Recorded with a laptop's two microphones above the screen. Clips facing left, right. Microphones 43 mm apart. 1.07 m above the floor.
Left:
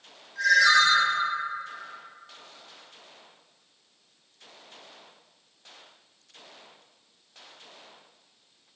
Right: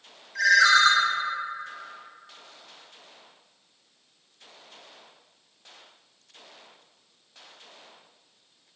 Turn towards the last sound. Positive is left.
turn(degrees=-70)  # may be behind; listen again after turning